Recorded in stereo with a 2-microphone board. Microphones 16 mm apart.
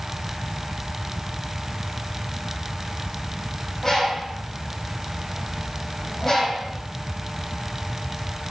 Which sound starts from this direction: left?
A bird, at 3.8 s.